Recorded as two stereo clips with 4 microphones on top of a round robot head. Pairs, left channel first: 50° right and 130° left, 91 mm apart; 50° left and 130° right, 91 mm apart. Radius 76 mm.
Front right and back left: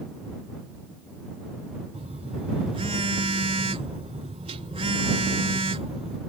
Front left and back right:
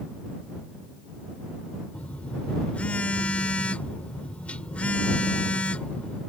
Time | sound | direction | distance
1.9 | a phone buzzing | 125° left | ?